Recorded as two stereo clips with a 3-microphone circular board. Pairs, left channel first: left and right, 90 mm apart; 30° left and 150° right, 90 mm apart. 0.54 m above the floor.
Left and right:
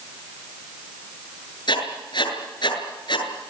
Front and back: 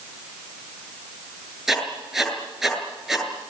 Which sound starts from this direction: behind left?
Writing, at 1.7 s.